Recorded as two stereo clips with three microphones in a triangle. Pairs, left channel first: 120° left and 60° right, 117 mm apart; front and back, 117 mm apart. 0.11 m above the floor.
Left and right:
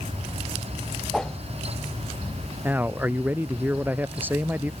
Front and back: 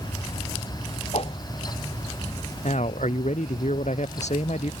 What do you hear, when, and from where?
1.1 s a whoosh: 35° left
2.6 s a man speaking: 15° left